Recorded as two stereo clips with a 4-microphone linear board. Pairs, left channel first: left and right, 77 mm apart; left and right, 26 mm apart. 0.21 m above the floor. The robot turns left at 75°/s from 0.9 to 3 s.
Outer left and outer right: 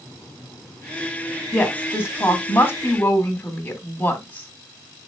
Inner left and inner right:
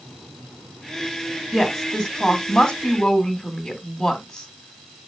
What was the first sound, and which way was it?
A woman speaking, 10° left (ahead or behind).